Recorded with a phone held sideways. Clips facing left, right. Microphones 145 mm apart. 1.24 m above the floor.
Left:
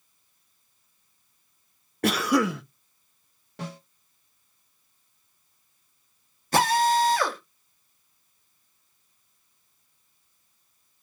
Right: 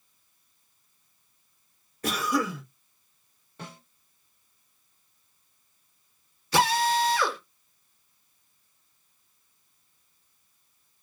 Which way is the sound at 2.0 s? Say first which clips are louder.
Left 5 dB; 70° left (ahead or behind).